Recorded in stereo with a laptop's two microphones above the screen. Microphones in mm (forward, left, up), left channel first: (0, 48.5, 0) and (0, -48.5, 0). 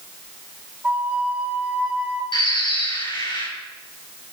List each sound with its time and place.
0.8 s a flute: 15° right (ahead or behind), 2.5 m
2.3 s a bird: 55° left (ahead or behind), 8.5 m